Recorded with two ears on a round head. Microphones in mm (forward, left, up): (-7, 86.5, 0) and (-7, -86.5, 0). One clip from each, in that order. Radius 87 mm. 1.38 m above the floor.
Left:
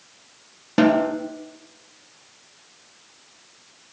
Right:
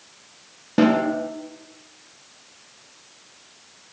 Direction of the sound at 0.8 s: 30° left (ahead or behind).